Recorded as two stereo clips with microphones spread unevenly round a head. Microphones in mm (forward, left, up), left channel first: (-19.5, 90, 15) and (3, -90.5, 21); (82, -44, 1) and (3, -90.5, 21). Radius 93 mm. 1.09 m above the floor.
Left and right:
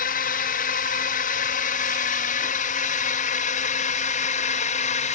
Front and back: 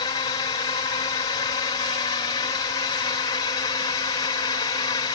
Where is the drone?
65° left; by 5.1 s 55° left.